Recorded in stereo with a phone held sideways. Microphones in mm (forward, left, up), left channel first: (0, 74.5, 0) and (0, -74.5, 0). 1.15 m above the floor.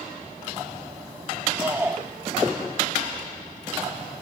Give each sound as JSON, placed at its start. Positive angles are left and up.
{"t": 1.6, "sound": "a shout", "side_deg": -10, "distance_m": 6.5}